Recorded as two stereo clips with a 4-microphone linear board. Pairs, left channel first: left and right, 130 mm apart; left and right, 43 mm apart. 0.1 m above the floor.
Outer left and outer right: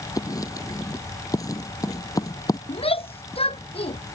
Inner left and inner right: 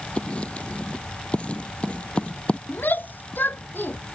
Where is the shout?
55° left (ahead or behind).